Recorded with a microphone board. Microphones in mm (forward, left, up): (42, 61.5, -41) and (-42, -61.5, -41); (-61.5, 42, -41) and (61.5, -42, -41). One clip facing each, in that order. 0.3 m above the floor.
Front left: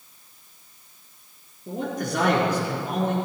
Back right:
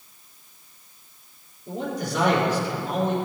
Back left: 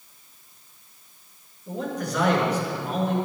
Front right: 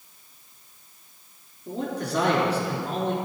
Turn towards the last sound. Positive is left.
turn(degrees=25)